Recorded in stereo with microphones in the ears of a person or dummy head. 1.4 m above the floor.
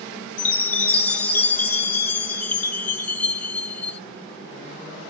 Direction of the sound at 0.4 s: 10° left (ahead or behind).